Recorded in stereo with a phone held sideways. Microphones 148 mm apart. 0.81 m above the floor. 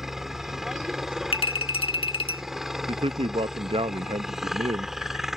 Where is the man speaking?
40° right (ahead or behind).